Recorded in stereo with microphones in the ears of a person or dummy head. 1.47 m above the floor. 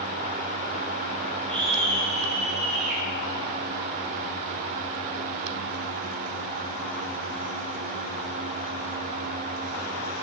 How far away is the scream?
About 10 m.